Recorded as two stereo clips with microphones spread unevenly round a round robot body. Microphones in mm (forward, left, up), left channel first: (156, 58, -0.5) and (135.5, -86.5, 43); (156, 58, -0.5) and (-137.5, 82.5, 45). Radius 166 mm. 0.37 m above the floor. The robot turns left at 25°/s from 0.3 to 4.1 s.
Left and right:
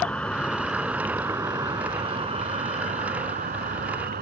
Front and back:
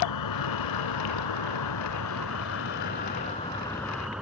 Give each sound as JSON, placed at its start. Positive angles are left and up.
{"t": 0.0, "sound": "an insect", "azimuth_deg": 0}